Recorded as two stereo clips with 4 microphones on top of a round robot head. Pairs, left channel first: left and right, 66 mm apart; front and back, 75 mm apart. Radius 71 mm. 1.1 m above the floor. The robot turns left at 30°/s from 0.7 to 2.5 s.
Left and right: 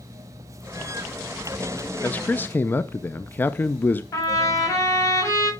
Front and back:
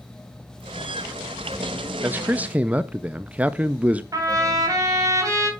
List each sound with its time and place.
2.0 s a man speaking: 135° left, 0.6 m; by 4.0 s 120° left, 0.6 m
4.1 s a trumpet: 140° left, 4.5 m